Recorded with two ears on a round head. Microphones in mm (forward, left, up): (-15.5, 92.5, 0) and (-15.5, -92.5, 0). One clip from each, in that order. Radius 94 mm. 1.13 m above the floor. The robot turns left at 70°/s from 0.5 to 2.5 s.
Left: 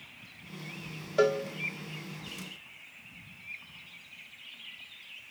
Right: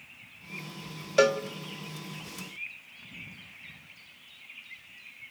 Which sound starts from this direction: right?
A cowbell, at 1.2 s.